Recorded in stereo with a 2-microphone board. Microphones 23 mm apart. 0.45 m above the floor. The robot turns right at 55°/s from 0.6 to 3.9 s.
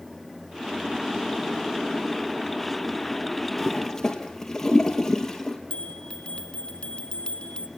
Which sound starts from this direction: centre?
A toilet flushing, at 3.6 s.